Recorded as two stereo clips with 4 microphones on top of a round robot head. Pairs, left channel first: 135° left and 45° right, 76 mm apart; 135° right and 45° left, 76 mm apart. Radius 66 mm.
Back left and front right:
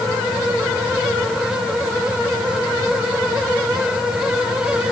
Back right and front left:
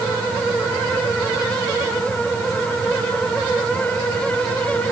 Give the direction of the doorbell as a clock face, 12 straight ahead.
No doorbell in this recording.